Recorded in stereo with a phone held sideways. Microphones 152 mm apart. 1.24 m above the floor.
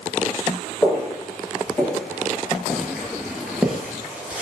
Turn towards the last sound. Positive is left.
turn(degrees=-10)  # may be behind; listen again after turning